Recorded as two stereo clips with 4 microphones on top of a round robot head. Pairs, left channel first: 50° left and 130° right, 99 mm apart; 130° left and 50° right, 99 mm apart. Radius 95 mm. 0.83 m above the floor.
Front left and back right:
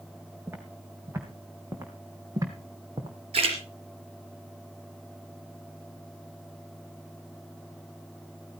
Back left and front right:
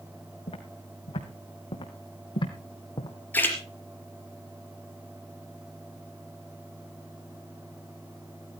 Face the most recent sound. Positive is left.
turn(degrees=-155)